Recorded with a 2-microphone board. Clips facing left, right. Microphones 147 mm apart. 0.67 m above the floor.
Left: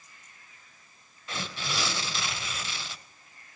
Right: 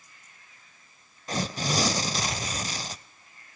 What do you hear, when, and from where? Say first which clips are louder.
1.3 s tearing paper: right 7 dB; 40° right (ahead or behind), 0.6 m